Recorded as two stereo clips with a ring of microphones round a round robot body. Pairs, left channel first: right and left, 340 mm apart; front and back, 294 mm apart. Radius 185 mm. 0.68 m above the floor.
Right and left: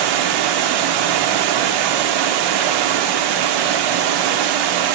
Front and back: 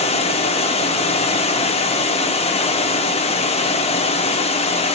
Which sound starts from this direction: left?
Running water, at 0.0 s.